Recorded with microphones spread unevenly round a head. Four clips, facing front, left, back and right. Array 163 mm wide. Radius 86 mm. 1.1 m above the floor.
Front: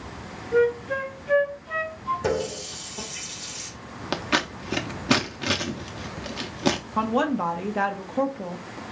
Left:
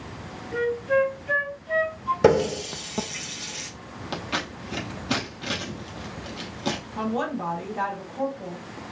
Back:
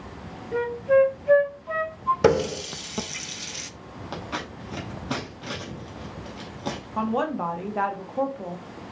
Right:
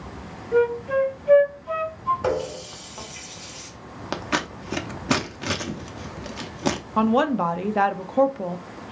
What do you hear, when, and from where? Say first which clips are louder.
0.5 s a flute: right 3 dB, back 2 dB; 130° right, 3 m
2.2 s a running tap: left 6 dB, back 9 dB; 130° left, 0.6 m
4.1 s scissors: right 4 dB, front 7 dB; 30° right, 0.9 m
7.0 s a woman speaking: right 10 dB, back 1 dB; 55° right, 0.9 m